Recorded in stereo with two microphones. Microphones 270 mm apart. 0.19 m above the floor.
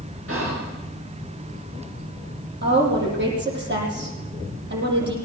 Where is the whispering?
55° right (ahead or behind), 3.5 m.